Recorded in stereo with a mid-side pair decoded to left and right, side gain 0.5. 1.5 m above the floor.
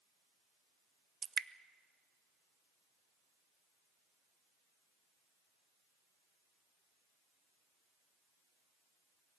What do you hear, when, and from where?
1.2 s dripping: 40° right, 0.6 m